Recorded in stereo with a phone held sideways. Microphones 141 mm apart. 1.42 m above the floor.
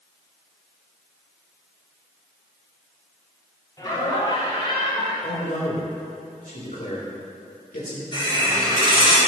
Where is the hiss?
40° left (ahead or behind), 3.5 m.